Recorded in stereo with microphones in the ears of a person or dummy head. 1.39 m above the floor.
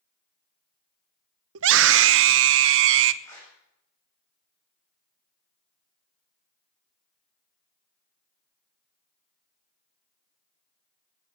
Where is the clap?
15° left (ahead or behind), 7.5 m.